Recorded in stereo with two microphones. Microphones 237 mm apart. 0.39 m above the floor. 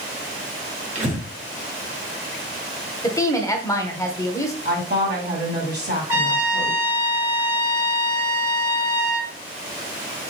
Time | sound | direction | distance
0.9 | breathing | 30° right (ahead or behind) | 1.3 m
3.0 | a woman speaking | 15° left (ahead or behind) | 0.9 m
4.7 | a woman speaking | 45° right (ahead or behind) | 2 m
6.1 | a trumpet | 10° right (ahead or behind) | 1.4 m